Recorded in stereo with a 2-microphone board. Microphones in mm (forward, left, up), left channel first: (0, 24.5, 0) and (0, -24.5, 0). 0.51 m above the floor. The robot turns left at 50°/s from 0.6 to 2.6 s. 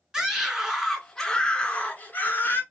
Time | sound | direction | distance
0.1 | a scream | 170° right | 1.7 m